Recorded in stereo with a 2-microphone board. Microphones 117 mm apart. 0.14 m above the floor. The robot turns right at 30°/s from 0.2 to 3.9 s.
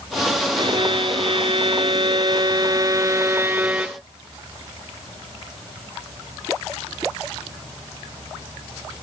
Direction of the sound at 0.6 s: 110° right.